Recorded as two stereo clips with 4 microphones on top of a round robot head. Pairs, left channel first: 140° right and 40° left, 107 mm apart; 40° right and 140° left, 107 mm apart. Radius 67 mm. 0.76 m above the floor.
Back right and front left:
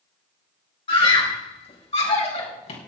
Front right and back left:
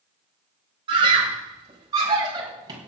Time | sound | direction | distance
0.9 | a scream | straight behind | 4 m